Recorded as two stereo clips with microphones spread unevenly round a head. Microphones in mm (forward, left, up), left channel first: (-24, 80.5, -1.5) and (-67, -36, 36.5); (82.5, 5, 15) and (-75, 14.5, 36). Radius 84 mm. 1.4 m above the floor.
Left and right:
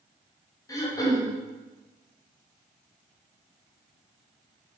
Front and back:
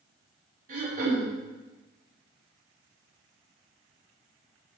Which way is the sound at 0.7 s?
135° left.